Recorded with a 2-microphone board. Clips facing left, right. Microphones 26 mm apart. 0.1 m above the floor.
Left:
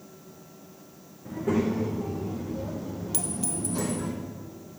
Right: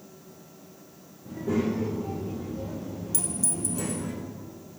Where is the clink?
35° left (ahead or behind), 1.6 m.